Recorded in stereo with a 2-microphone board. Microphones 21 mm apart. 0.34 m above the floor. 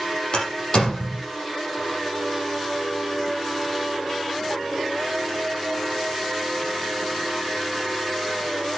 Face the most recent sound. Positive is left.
turn(degrees=45)  # may be behind; listen again after turning